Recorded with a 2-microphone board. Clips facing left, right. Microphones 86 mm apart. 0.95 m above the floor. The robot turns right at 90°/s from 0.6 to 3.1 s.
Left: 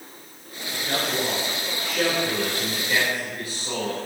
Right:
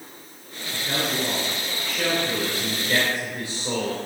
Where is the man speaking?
Straight ahead, 2.5 m; by 4.0 s 150° right, 2.5 m.